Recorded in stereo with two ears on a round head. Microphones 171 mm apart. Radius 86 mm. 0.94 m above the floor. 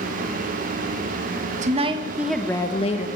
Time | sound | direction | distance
1.6 | a woman speaking | 40° right (ahead or behind) | 1.4 m